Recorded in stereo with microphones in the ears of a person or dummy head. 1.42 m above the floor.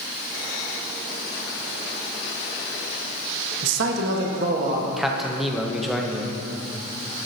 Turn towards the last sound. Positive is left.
turn(degrees=0)  # may be behind; listen again after turning